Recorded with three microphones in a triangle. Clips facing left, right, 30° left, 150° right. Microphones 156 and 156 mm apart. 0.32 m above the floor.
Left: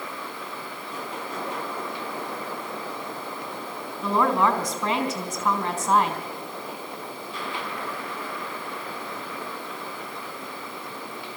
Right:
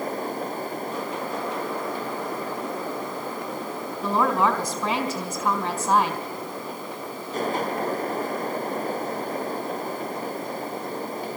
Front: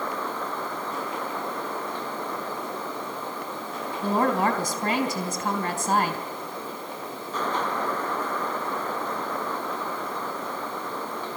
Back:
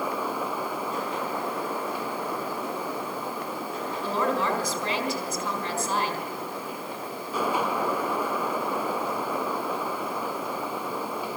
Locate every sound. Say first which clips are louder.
4.0 s a woman speaking: even, front 4 dB; 10° right, 3.5 m